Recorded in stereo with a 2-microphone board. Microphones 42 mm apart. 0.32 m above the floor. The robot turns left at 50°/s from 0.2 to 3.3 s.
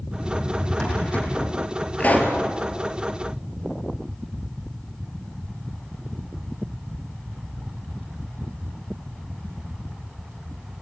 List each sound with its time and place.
0.2 s a drawer: 165° right, 4.5 m; by 1.3 s 140° left, 4.5 m
2.0 s a pop: 35° left (ahead or behind), 3 m; by 2.4 s 55° left (ahead or behind), 3 m